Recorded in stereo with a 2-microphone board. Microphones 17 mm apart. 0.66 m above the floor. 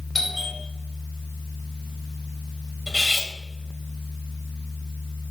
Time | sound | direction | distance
0.1 | a doorbell | centre (ahead or behind) | 5 m
2.9 | cutlery clinking | 5° right (ahead or behind) | 2 m